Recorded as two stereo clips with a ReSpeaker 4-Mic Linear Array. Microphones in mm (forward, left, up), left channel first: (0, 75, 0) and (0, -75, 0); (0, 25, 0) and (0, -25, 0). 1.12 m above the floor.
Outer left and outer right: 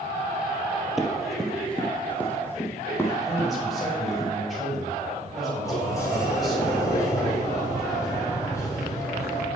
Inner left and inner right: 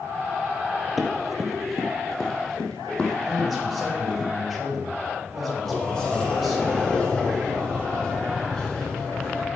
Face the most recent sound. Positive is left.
turn(degrees=20)  # may be behind; listen again after turning